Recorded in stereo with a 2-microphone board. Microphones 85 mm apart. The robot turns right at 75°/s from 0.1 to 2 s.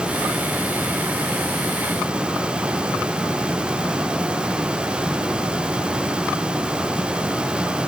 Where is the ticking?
No ticking in this recording.